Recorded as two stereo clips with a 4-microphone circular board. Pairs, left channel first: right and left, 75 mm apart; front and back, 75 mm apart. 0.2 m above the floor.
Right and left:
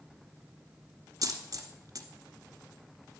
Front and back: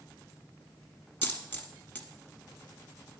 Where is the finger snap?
No finger snap in this recording.